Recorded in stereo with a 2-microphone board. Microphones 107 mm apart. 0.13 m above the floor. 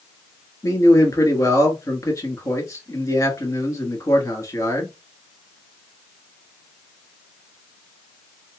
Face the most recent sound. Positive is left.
turn(degrees=30)  # may be behind; listen again after turning